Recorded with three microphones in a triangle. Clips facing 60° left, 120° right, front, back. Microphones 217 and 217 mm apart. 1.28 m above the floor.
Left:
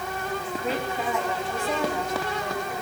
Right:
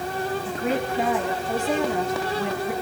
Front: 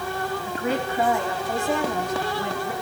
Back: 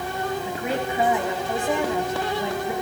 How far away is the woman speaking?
About 8.5 m.